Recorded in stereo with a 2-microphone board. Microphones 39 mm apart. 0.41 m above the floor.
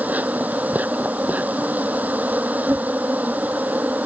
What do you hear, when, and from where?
0.0 s an insect: 45° right (ahead or behind)